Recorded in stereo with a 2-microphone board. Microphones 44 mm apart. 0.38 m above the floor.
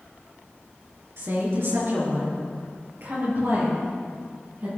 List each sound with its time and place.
1.2 s a woman speaking: 65° right (ahead or behind), 4.5 m; by 4.7 s 45° right (ahead or behind), 8 m